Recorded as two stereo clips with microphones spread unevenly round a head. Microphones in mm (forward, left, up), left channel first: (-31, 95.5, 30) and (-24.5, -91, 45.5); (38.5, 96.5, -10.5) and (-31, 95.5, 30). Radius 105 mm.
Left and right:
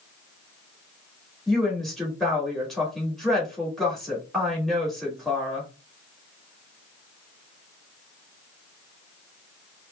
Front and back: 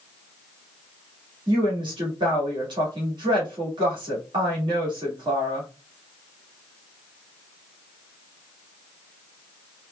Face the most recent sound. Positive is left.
turn(degrees=180)